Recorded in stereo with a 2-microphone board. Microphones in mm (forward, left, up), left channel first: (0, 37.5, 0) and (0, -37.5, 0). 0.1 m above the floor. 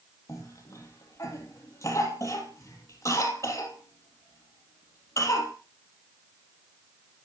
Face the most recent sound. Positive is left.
turn(degrees=40)  # may be behind; listen again after turning